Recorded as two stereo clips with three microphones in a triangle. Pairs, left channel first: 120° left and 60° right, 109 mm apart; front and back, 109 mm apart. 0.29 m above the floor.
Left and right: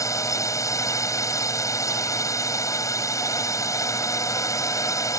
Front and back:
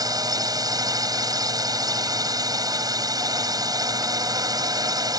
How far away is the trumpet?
No trumpet in this recording.